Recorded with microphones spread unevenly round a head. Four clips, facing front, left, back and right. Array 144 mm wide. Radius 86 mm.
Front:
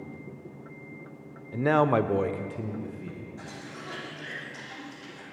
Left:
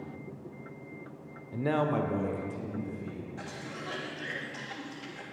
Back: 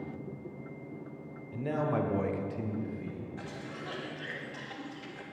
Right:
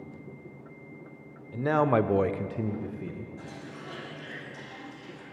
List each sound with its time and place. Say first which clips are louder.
1.5 s a man speaking: right 5 dB, front 9 dB; 10° left, 0.5 m; by 3.3 s 85° right, 1.1 m
3.4 s a cough: left 1 dB, even; 115° left, 3 m